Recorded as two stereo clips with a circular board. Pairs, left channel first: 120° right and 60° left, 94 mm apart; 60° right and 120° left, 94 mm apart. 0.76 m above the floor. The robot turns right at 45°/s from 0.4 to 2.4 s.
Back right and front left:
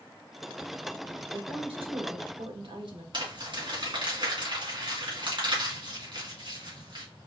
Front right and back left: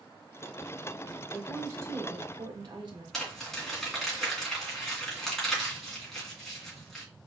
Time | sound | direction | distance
1.3 | a woman speaking | 35° left | 1.9 m
3.1 | crumpling | 25° left | 2.5 m